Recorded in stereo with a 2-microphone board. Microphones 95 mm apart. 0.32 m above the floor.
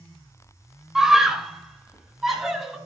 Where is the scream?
5° right (ahead or behind), 0.9 m.